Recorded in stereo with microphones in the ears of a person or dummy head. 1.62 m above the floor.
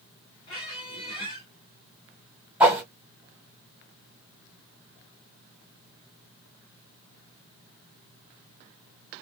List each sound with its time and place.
0.5 s a squeak: 25° left (ahead or behind), 1.6 m
2.6 s a whoosh: 10° right (ahead or behind), 1.7 m